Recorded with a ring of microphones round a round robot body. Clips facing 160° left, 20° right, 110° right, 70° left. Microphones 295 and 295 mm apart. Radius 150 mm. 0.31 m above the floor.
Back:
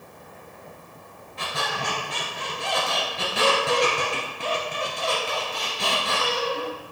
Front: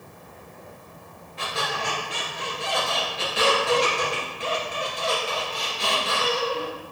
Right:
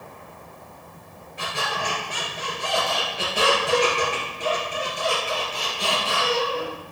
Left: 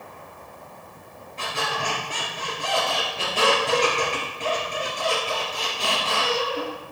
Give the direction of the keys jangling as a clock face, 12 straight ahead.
I don't hear keys jangling.